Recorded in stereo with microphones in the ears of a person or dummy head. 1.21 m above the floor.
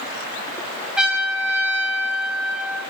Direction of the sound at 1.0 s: 5° right (ahead or behind).